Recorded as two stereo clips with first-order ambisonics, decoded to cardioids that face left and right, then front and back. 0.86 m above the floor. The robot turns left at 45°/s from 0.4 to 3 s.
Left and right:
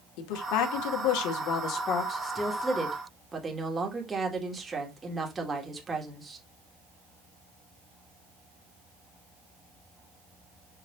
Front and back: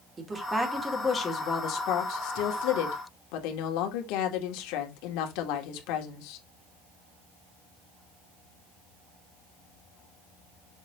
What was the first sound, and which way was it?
A woman speaking, 105° left.